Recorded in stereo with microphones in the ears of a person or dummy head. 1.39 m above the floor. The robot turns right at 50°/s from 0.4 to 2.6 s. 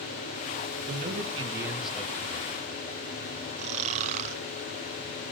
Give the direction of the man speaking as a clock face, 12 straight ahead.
2 o'clock.